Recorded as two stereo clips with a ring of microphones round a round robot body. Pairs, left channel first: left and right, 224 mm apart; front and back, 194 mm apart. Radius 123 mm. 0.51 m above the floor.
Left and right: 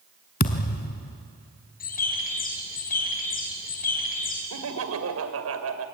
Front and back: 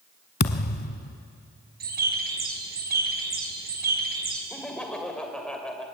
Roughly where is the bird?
Behind left.